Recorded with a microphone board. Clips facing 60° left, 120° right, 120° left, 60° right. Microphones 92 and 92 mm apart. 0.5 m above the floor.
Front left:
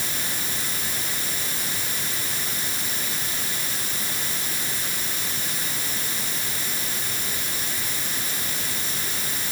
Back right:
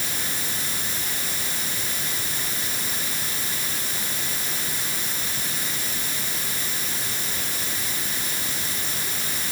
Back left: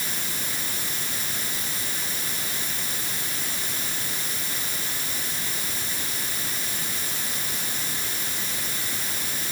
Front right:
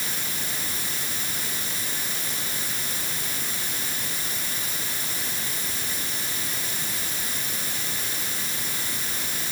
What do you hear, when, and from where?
Only background noise.